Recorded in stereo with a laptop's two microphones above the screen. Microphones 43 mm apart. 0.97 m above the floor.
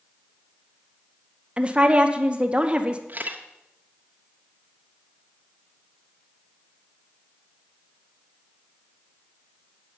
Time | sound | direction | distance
1.6 | a woman speaking | 25° right (ahead or behind) | 0.8 m
3.1 | a camera shutter | 45° right (ahead or behind) | 0.8 m